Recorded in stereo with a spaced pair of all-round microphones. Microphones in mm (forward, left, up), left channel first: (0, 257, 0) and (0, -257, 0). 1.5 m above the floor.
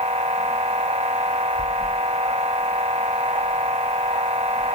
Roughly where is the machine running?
Centre.